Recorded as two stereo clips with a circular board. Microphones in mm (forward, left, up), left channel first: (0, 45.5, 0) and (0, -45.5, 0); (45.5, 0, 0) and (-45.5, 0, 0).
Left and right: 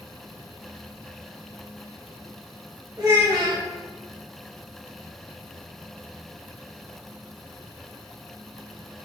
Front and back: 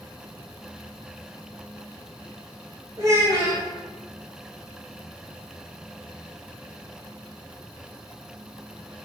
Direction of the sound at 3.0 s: 130° right.